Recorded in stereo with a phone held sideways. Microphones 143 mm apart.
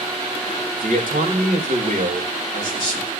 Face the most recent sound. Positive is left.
turn(degrees=-70)  # may be behind; listen again after turning